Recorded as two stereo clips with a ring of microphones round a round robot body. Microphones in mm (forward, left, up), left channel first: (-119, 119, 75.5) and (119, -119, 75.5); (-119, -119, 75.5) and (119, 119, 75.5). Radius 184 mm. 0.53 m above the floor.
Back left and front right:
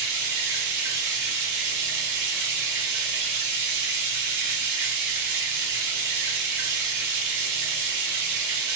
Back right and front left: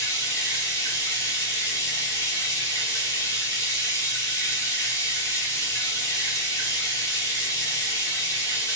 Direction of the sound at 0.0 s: 55° right.